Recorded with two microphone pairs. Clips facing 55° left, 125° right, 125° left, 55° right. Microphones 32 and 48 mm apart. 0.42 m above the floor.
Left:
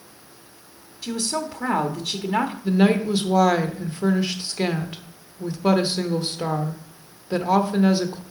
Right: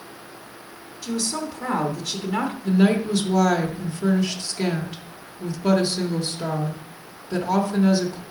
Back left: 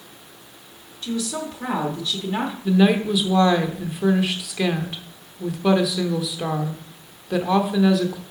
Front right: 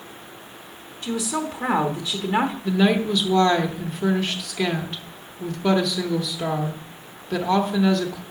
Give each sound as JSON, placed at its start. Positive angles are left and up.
{"t": 1.0, "sound": "a woman speaking", "azimuth_deg": 5, "distance_m": 0.9}
{"t": 2.6, "sound": "a woman speaking", "azimuth_deg": 50, "distance_m": 0.8}